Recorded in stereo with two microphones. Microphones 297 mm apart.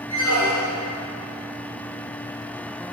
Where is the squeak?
80° left, 2 m.